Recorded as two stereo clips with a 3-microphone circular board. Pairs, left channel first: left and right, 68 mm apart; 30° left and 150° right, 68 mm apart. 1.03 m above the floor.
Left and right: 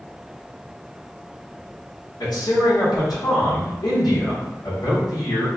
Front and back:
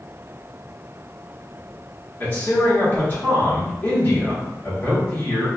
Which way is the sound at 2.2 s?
85° left.